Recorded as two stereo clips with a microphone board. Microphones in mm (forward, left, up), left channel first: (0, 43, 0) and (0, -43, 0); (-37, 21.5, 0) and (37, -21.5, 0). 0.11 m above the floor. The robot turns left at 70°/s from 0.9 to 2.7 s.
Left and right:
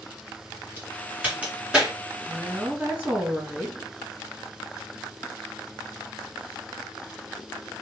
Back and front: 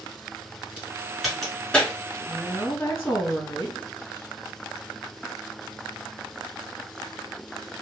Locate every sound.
0.8 s a crack: 90° right, 1.5 m; by 1.9 s 160° right, 1.5 m
2.3 s a woman speaking: 135° right, 2 m; by 3.8 s 165° right, 2 m